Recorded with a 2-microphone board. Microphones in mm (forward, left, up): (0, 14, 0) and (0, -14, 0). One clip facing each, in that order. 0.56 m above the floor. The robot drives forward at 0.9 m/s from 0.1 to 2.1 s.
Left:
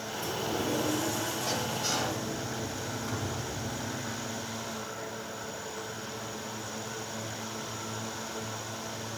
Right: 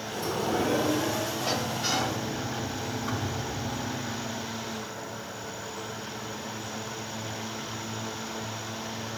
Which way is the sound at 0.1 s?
55° right (ahead or behind).